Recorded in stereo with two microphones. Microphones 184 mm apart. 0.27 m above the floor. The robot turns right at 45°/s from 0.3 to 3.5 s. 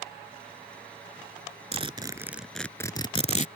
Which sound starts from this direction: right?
A zipper, at 1.7 s.